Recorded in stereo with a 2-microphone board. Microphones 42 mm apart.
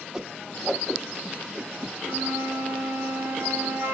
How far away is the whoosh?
About 0.9 m.